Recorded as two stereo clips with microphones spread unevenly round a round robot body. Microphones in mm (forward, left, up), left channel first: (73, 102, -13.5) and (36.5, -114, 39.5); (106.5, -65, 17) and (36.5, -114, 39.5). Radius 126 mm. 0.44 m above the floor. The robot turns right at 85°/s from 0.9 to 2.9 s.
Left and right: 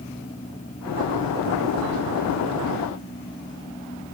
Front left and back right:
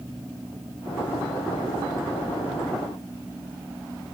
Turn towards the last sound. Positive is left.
No sound to turn to.